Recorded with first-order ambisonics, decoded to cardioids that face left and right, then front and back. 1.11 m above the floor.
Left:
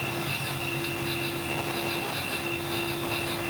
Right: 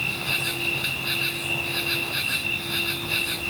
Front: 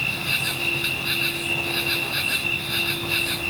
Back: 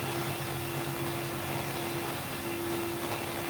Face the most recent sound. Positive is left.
turn(degrees=-25)